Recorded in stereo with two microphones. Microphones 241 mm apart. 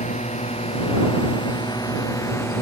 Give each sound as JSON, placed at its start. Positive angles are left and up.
{"t": 0.0, "sound": "a drone", "side_deg": 30}